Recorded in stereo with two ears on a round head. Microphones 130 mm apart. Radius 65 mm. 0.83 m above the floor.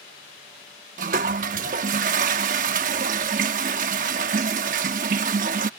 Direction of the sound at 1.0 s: 60° right (ahead or behind).